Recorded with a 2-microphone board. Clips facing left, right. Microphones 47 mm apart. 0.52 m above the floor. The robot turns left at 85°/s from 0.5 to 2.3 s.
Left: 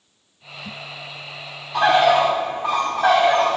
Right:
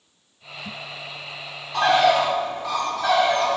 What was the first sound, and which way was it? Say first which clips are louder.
A bird: left 2 dB; 170° left.